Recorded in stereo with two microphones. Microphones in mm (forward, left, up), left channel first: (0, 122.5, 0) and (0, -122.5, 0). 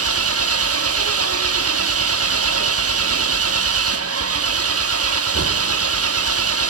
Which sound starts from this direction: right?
An engine running, at 0.0 s.